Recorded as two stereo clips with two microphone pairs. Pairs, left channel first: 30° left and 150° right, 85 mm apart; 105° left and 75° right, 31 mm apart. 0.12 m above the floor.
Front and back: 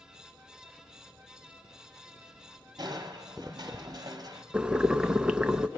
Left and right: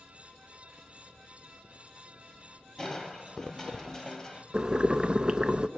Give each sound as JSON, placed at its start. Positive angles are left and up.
{"t": 2.8, "sound": "crushing", "azimuth_deg": 175, "distance_m": 1.4}
{"t": 4.5, "sound": "boiling", "azimuth_deg": -85, "distance_m": 0.6}